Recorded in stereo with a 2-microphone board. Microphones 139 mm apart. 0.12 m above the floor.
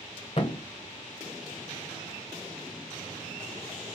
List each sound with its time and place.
0.4 s a thud: 40° left (ahead or behind), 0.7 m